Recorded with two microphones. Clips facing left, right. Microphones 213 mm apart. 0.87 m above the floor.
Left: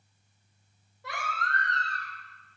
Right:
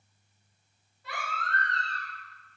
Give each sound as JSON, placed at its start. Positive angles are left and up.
{"t": 1.0, "sound": "a baby crying", "side_deg": 85, "distance_m": 1.7}